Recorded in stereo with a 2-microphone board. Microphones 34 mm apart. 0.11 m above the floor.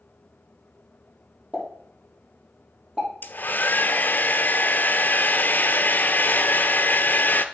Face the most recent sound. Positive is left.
turn(degrees=60)  # may be behind; listen again after turning